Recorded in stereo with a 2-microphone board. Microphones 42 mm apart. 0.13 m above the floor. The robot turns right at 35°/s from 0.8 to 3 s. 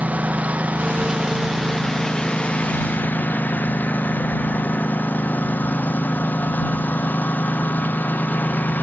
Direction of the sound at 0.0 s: 35° right.